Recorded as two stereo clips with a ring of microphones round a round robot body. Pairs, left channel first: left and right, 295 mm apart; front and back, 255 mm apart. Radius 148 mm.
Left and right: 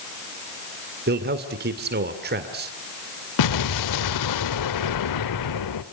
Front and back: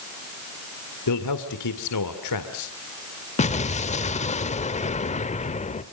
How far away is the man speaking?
About 2 m.